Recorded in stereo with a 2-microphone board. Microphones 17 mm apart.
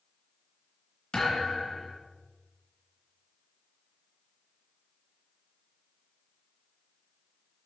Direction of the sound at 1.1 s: 65° left (ahead or behind).